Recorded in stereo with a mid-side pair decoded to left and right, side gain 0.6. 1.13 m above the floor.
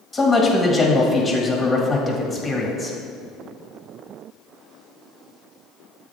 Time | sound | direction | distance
0.1 | a man speaking | 25° left | 1.7 m